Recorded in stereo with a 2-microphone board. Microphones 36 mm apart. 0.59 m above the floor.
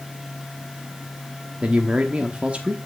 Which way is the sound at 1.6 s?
35° right (ahead or behind).